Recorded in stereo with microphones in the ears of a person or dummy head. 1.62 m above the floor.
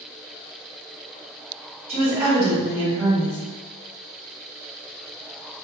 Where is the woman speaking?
35° right (ahead or behind), 1.4 m.